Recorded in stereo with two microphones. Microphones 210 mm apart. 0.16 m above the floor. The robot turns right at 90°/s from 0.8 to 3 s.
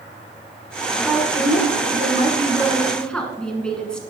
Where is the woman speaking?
175° right, 1.4 m; by 4.0 s 5° left, 1.4 m.